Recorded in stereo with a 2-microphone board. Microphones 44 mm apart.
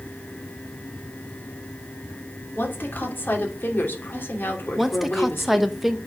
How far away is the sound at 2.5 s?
About 3 m.